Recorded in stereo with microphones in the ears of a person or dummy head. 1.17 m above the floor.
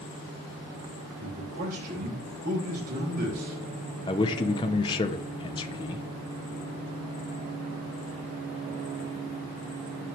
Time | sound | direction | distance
1.2 | a man speaking | 45° right (ahead or behind) | 4.5 m
4.1 | a man speaking | 20° left (ahead or behind) | 0.8 m